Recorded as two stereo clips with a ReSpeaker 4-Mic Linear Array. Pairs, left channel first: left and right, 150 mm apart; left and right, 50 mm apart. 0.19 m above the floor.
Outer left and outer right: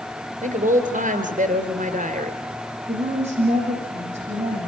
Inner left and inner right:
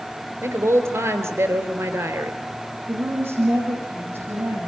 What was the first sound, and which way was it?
A woman speaking, 60° right (ahead or behind).